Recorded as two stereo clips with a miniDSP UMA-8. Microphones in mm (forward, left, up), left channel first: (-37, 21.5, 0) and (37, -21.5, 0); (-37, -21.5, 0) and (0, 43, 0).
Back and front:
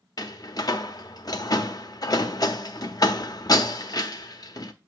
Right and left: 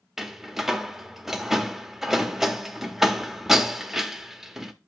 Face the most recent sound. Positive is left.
turn(degrees=140)